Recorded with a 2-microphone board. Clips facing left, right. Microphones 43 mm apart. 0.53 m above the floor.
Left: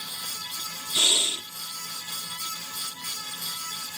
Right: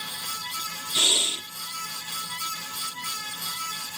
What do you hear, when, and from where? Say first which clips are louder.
0.9 s breathing: even; 25° right (ahead or behind), 1.0 m